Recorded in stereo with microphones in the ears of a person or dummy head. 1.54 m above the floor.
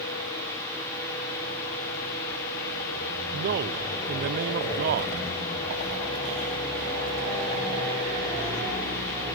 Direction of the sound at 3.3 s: 55° right (ahead or behind).